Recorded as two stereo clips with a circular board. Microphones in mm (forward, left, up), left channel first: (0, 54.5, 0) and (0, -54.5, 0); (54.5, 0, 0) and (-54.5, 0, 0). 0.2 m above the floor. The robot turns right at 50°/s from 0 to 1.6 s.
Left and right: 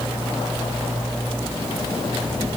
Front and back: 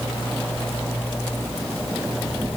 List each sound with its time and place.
Only background noise.